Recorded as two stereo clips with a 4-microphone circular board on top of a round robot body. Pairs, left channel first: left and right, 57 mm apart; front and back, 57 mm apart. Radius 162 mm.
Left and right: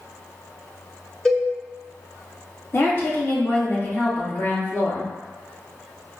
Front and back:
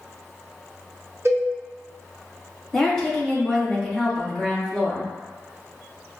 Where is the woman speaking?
80° left, 1.4 m.